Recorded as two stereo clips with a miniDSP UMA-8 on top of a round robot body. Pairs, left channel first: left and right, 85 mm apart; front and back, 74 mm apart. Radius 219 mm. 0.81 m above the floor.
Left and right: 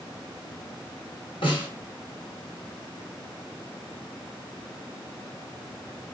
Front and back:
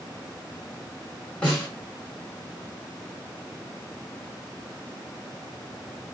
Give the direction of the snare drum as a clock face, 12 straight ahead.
10 o'clock.